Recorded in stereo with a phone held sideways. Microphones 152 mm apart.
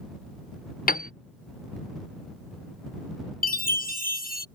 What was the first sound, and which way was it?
A piano, 70° left (ahead or behind).